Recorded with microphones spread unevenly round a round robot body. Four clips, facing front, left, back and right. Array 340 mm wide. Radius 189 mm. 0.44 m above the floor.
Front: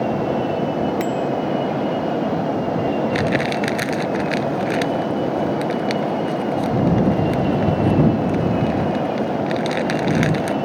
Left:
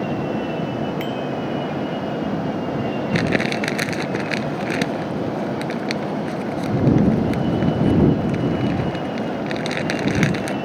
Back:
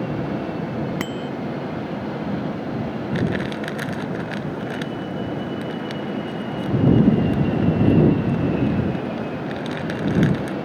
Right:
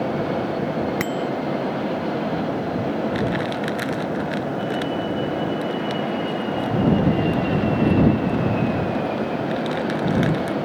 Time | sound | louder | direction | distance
1.0 | a bicycle bell | right 1 dB, front 7 dB | 155° right | ?
3.1 | crumpling | left 2 dB, front 4 dB | 65° left | ?